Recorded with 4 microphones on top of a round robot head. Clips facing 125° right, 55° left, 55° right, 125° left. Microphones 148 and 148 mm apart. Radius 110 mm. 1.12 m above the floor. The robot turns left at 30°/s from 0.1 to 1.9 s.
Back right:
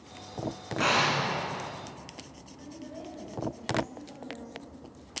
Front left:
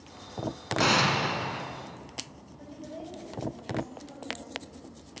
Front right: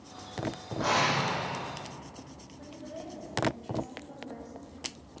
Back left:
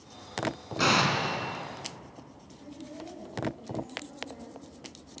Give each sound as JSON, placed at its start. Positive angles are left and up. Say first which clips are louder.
{"t": 0.8, "sound": "an explosion", "louder": "front left 1 dB, back left 1 dB", "azimuth_deg": 110, "distance_m": 3.0}
{"t": 2.6, "sound": "a woman speaking", "louder": "front left 1 dB, even", "azimuth_deg": -10, "distance_m": 8.5}